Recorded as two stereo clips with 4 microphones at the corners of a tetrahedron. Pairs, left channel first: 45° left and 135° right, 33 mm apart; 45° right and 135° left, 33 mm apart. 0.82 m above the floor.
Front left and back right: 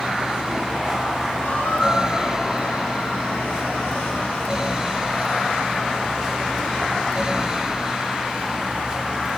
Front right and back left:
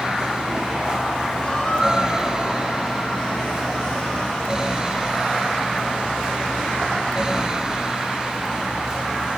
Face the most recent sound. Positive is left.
turn(degrees=25)